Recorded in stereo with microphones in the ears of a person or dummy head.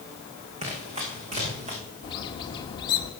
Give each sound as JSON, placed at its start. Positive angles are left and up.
{"t": 0.6, "sound": "running footsteps", "side_deg": -35, "distance_m": 5.5}
{"t": 2.0, "sound": "a bird", "side_deg": 25, "distance_m": 1.5}